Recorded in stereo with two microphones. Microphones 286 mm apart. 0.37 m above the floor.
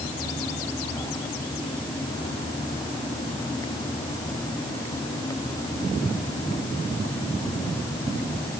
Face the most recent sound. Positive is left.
No sound to turn to.